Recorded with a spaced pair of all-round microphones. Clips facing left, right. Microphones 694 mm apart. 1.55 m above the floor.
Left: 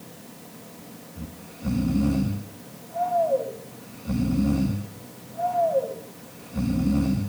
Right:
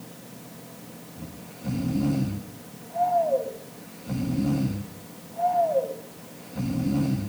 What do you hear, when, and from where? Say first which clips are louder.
1.2 s snoring: left 3 dB; 40° left (ahead or behind), 2.5 m